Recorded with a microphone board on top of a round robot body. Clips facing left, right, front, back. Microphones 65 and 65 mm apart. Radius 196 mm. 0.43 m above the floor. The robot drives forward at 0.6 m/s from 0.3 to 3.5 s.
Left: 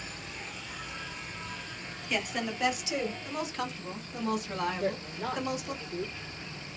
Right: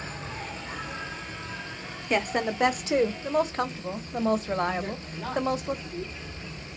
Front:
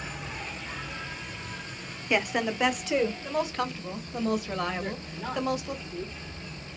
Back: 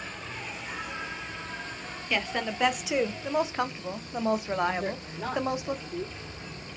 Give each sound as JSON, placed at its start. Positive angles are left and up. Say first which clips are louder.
{"t": 0.0, "sound": "an insect", "louder": "right 5 dB, front 1 dB", "azimuth_deg": -80, "distance_m": 1.0}
{"t": 2.1, "sound": "a woman speaking", "louder": "right 7 dB, front 3 dB", "azimuth_deg": -65, "distance_m": 1.2}
{"t": 4.8, "sound": "a woman speaking", "louder": "left 2 dB, back 2 dB", "azimuth_deg": 155, "distance_m": 3.0}